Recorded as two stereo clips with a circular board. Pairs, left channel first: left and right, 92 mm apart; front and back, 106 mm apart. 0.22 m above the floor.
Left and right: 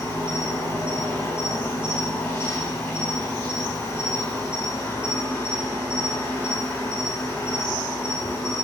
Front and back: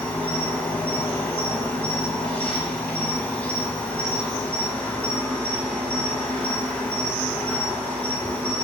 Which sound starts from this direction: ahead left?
An insect, at 0.0 s.